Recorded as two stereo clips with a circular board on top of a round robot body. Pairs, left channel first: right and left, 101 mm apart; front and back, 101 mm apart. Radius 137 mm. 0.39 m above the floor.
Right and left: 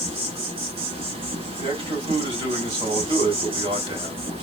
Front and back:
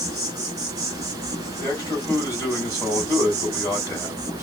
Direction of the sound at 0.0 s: 120° left.